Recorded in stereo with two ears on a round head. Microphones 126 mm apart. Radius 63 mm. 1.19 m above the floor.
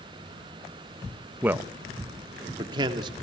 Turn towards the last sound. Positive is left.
turn(degrees=-35)  # may be behind; listen again after turning